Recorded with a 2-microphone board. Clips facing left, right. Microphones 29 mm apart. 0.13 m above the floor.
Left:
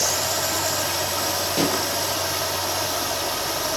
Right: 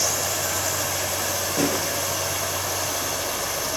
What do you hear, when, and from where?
0.0 s running water: 70° left (ahead or behind), 5.5 m
1.6 s a pop: 70° left (ahead or behind), 5 m